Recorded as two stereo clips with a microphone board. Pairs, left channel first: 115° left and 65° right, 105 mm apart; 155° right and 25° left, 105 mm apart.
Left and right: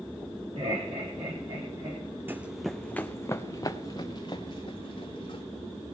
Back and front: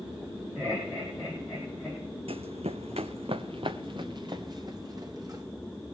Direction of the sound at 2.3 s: Straight ahead.